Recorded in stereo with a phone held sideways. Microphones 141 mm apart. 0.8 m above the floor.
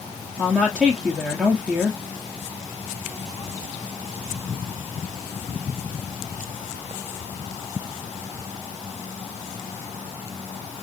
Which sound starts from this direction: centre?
A woman speaking, at 0.4 s.